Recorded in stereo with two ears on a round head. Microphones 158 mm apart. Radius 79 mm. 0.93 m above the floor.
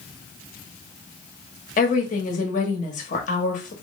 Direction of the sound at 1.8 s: 45° left (ahead or behind).